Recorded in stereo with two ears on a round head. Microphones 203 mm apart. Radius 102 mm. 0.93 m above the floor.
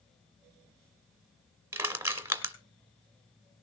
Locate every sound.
1.7 s crushing: 10° right (ahead or behind), 2.0 m